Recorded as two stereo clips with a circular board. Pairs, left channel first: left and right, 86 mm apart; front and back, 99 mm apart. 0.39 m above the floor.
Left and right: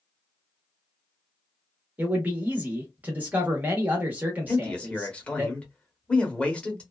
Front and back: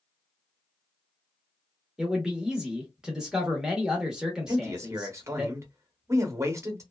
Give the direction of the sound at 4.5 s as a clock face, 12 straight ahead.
7 o'clock.